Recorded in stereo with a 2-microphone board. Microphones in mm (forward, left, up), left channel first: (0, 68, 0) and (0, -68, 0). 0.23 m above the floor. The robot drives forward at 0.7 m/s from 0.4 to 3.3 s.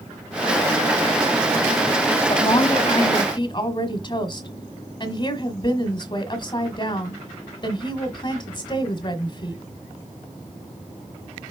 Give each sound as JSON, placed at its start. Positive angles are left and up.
{"t": 2.3, "sound": "a woman speaking", "side_deg": 35, "distance_m": 1.3}